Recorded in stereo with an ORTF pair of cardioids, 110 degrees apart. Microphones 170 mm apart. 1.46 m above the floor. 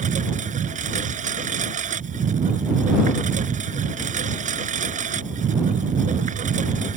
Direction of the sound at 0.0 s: 50° right.